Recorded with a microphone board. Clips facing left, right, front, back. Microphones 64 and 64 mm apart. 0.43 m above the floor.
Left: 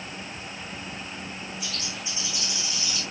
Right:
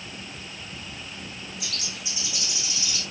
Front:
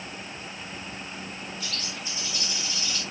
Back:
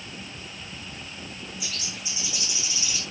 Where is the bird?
100° right, 3.5 m.